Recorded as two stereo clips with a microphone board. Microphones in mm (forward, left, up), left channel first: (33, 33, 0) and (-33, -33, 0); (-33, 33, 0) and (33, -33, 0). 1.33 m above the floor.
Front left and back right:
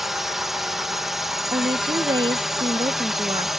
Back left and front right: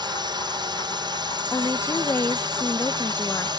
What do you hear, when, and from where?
0.0 s a drone: 50° right
1.5 s a woman speaking: 165° right